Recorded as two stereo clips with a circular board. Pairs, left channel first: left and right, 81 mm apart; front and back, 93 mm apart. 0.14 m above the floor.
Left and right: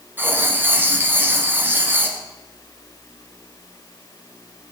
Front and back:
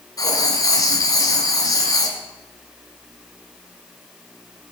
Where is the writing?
35° right, 1.7 m.